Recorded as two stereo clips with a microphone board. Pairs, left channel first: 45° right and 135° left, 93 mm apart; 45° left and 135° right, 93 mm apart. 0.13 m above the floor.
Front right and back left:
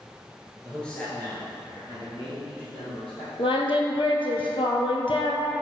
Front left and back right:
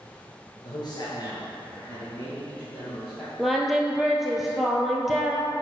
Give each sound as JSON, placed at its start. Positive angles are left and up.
{"t": 0.6, "sound": "a man speaking", "azimuth_deg": 40, "distance_m": 1.7}
{"t": 3.4, "sound": "singing", "azimuth_deg": -50, "distance_m": 0.7}